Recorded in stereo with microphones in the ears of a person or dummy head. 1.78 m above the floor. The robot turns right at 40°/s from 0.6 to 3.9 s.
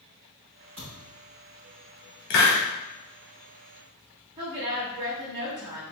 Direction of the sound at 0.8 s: 40° right (ahead or behind).